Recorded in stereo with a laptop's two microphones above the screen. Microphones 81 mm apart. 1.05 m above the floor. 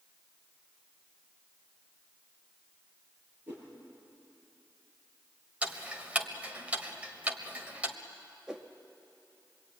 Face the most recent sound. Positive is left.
turn(degrees=-5)  # may be behind; listen again after turning